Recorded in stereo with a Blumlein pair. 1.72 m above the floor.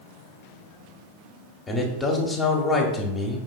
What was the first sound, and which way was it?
A man speaking, 15° left.